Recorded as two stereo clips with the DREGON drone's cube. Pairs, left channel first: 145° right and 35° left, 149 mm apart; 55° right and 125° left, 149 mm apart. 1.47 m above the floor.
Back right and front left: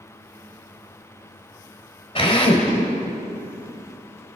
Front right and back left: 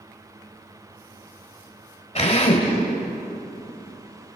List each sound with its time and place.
2.1 s a drill: 95° right, 3 m